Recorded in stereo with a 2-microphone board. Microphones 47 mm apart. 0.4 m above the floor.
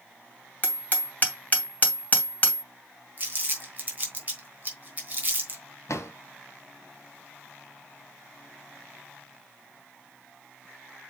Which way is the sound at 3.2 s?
30° right (ahead or behind).